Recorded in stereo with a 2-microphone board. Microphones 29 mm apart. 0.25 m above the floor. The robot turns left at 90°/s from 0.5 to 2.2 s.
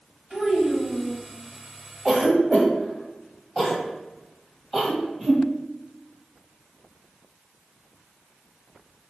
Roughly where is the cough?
Centre.